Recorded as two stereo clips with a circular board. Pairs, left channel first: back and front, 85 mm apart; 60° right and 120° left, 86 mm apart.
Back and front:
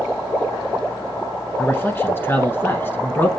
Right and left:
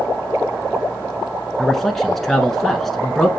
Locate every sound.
1.6 s a man speaking: 145° right, 1.3 m